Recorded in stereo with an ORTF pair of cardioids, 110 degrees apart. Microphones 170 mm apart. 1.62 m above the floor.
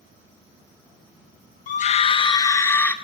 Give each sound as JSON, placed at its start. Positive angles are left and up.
{"t": 1.7, "sound": "a scream", "azimuth_deg": 50, "distance_m": 1.2}